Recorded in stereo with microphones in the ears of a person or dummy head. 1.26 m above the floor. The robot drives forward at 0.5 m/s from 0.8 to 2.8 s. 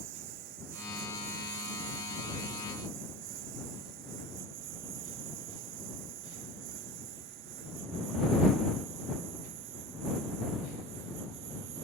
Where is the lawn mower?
60° right (ahead or behind); by 11.8 s 65° right (ahead or behind).